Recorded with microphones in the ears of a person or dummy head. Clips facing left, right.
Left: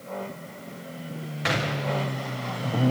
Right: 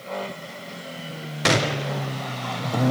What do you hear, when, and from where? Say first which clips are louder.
1.4 s a gunshot: right 5 dB; 50° right (ahead or behind), 0.5 m